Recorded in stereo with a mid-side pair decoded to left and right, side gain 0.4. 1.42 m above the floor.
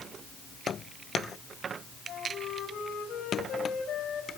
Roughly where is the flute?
Left.